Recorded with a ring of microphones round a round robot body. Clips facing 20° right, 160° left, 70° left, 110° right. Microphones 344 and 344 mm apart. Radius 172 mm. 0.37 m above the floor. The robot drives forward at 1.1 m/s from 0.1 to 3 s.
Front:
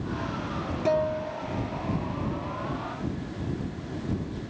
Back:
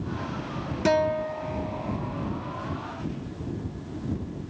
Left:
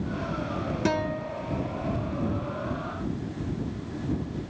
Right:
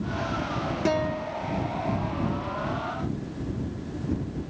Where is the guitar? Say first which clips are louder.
Back 3 dB, right 2 dB; 145° left; by 2.0 s 170° left.